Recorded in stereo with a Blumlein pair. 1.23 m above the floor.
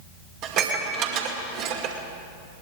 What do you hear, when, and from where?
0.4 s dishes clattering: 40° right, 2 m